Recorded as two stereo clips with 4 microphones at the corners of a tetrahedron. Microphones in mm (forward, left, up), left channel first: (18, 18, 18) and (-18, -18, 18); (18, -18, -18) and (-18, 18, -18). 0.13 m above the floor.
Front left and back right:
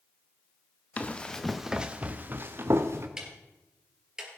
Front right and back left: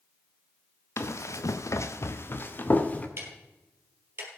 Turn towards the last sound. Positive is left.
turn(degrees=150)